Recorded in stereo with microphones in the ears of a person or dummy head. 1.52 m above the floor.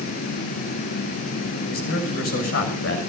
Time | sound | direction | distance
1.7 | a man speaking | 70° left (ahead or behind) | 6.5 m